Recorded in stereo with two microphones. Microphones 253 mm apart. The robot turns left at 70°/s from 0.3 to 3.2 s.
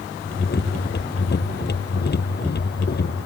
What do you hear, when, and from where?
Only background noise.